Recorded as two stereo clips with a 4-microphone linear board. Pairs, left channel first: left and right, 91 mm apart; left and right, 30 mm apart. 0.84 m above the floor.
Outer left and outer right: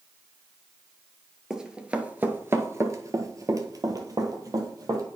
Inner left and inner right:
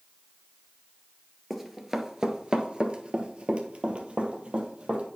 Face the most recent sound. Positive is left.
turn(degrees=-40)  # may be behind; listen again after turning